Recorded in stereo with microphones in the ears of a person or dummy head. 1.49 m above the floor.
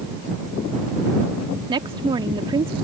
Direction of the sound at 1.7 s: 25° right (ahead or behind).